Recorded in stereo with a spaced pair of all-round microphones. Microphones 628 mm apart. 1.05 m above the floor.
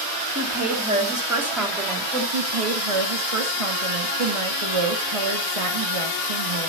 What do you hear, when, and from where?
0.3 s a woman speaking: 15° right (ahead or behind), 3 m; by 2.2 s 10° left (ahead or behind), 3 m
2.3 s a woman speaking: 50° right (ahead or behind), 1.4 m